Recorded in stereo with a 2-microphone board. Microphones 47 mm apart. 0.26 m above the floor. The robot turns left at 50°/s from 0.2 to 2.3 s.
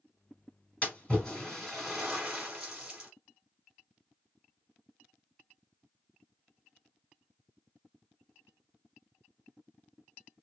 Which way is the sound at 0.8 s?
25° left (ahead or behind).